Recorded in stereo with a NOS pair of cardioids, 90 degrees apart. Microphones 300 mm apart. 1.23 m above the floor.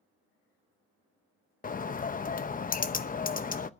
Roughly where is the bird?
Ahead left.